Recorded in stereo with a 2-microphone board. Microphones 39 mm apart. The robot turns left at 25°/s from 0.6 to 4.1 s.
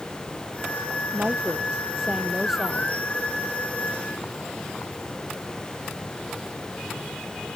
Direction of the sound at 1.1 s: 140° right.